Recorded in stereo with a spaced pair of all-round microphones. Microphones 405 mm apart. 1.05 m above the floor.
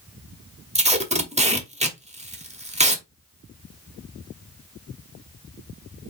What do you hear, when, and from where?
0.8 s tape being pulled: 15° right (ahead or behind), 0.9 m